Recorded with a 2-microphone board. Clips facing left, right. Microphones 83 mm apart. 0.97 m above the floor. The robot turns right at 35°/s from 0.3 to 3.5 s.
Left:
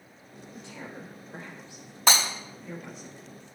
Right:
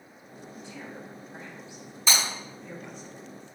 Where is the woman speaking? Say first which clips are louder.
Even; 80° left, 5 m; by 3.1 s centre (ahead or behind), 5 m.